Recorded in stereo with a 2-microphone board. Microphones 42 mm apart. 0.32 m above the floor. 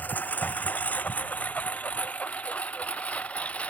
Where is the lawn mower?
45° left (ahead or behind); by 3.7 s 35° left (ahead or behind).